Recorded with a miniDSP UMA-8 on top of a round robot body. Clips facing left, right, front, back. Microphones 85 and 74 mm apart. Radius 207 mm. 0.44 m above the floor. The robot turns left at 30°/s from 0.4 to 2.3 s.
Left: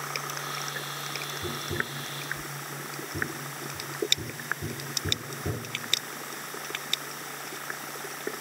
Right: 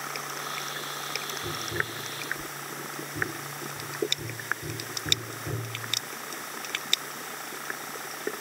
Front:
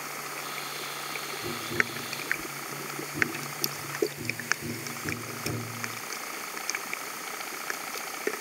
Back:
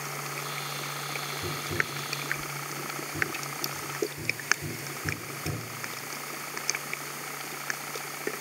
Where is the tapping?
115° left, 1.1 m; by 6.0 s 90° left, 1.1 m.